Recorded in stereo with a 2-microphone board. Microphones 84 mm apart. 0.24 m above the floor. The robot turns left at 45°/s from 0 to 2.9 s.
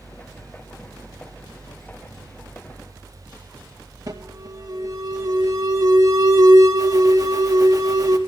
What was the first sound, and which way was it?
An alarm, 50° right (ahead or behind).